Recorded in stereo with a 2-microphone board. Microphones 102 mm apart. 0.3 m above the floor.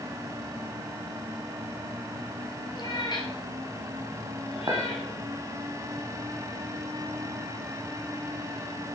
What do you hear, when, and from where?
2.8 s a cat meowing: 45° left (ahead or behind), 2.5 m; by 5.1 s 70° left (ahead or behind), 3.5 m
4.7 s a clink: 40° right (ahead or behind), 1.7 m